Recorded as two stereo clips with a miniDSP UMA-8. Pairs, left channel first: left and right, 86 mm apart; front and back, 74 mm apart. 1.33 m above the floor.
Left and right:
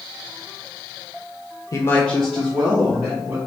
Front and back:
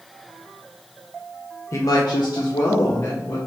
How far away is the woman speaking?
About 0.6 m.